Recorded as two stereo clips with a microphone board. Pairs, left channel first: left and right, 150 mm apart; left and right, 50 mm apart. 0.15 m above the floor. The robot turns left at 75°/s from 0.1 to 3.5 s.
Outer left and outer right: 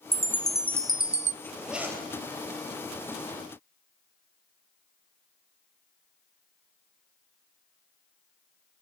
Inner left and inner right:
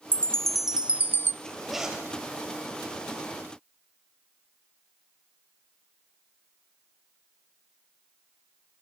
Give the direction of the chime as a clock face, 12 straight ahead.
11 o'clock.